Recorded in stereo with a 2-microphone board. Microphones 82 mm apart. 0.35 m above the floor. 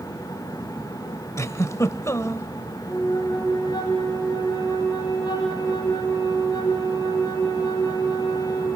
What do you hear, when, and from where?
1.4 s a giggle: 40° left (ahead or behind), 1.1 m
2.9 s a flute: 55° left (ahead or behind), 9 m